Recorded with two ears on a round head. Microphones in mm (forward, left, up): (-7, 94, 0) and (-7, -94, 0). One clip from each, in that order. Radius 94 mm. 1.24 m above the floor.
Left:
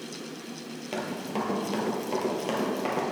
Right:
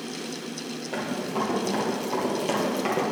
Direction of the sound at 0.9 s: 40° left (ahead or behind).